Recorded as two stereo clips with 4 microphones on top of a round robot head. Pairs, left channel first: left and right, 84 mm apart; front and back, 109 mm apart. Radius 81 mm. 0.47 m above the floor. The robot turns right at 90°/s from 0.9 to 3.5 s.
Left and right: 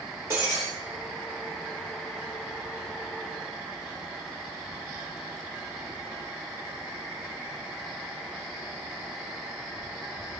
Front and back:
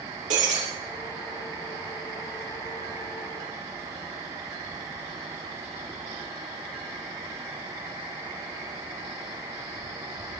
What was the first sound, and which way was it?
Breaking glass, 160° right.